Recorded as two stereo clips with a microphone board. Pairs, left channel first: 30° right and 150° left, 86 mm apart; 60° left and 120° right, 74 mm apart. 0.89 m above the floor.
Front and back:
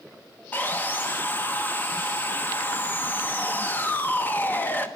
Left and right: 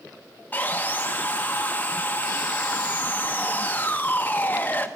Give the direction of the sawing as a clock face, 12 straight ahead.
12 o'clock.